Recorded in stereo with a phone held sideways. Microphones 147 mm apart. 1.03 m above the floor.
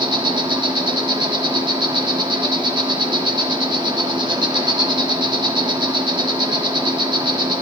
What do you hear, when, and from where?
0.0 s an insect: 30° right (ahead or behind), 1.5 m